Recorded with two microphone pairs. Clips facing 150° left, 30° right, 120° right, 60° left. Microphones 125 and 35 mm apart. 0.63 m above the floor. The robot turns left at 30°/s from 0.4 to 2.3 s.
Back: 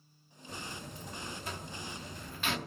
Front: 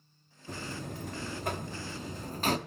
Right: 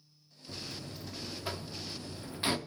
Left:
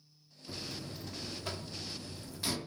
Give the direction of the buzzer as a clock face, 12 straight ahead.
1 o'clock.